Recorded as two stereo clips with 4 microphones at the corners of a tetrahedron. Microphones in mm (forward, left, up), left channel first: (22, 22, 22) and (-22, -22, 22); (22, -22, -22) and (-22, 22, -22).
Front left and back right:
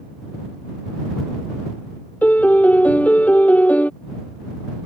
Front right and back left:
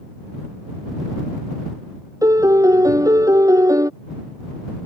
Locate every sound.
2.2 s a piano: 110° left